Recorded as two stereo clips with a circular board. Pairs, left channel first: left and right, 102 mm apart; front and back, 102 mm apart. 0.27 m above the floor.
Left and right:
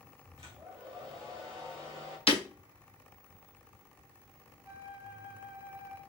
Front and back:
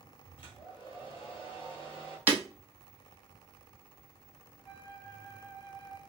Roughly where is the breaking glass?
Left.